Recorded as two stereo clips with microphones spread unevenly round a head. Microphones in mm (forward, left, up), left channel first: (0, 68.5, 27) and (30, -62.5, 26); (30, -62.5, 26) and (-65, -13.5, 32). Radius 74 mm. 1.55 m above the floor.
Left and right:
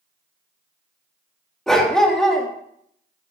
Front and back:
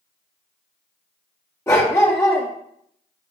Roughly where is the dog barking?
Ahead.